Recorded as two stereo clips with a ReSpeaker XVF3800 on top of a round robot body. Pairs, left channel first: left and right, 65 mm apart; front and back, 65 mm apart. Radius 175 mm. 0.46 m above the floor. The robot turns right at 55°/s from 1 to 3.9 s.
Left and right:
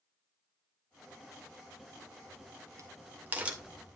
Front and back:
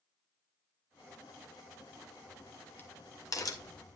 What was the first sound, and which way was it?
A crack, 105° right.